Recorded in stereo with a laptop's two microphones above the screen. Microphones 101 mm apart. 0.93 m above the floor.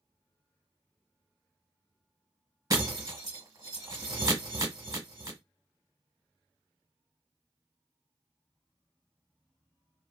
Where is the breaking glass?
40° right (ahead or behind), 1.1 m.